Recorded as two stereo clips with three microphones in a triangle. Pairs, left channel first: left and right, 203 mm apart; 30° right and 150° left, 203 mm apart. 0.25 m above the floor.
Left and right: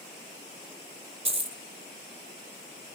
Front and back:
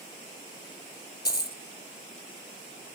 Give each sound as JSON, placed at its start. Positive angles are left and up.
{"t": 1.2, "sound": "a dropped coin", "azimuth_deg": -70, "distance_m": 0.7}